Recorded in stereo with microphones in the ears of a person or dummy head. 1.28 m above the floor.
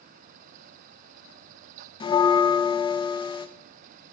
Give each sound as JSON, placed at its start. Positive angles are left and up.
{"t": 2.0, "sound": "a bell", "side_deg": 25, "distance_m": 0.7}